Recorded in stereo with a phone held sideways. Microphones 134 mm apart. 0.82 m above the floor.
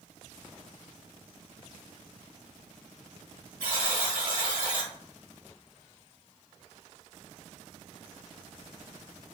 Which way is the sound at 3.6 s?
80° right.